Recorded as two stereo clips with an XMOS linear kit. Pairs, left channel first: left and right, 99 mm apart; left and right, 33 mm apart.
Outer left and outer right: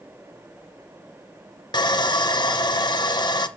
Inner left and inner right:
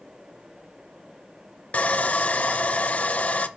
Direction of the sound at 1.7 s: 45° left (ahead or behind).